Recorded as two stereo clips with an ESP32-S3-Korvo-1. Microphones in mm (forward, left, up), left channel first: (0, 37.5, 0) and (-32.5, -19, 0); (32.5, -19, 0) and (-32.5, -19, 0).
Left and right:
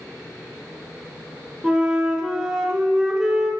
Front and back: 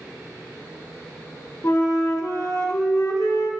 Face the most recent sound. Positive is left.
turn(degrees=-45)